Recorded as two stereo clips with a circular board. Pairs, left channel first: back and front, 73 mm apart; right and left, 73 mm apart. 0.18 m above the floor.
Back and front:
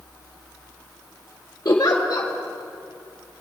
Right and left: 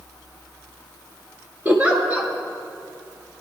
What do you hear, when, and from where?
1.6 s a giggle: 155° left, 1.7 m